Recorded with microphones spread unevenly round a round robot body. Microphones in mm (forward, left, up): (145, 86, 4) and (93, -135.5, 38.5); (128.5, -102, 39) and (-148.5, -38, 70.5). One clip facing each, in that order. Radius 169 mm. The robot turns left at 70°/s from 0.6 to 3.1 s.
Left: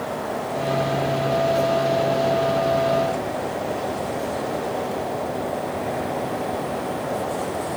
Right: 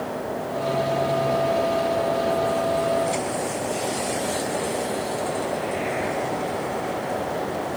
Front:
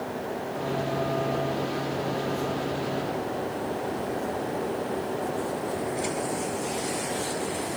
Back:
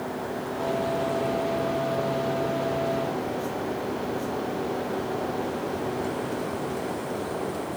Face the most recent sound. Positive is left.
No sound to turn to.